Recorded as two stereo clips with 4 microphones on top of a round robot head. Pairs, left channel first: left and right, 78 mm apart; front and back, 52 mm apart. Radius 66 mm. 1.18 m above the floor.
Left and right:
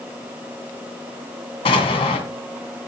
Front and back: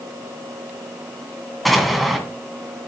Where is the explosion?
85° left, 2.5 m.